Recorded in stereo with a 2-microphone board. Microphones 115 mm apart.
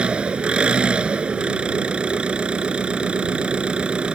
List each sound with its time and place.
0.0 s an engine running: 10° right (ahead or behind)